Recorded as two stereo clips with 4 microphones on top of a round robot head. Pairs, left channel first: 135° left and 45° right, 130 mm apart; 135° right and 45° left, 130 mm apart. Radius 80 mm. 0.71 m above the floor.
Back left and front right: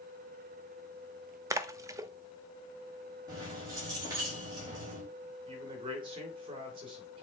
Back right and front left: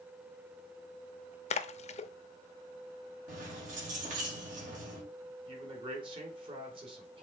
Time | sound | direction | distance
1.5 | a splash | 110° right | 0.7 m
3.3 | keys jangling | 20° left | 3.5 m
5.5 | a man speaking | straight ahead | 2.5 m